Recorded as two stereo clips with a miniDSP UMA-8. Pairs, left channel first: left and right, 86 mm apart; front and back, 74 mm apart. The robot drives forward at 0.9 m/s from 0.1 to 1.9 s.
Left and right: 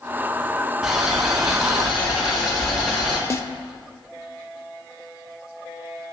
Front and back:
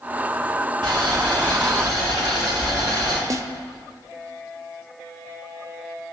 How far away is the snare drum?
About 0.6 m.